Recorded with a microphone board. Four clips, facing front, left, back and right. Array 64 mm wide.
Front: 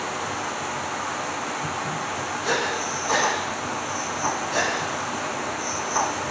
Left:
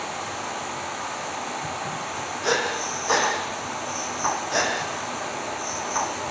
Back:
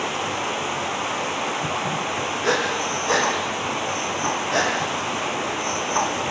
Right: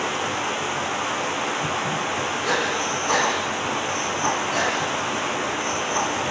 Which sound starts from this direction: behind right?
Running water, at 0.0 s.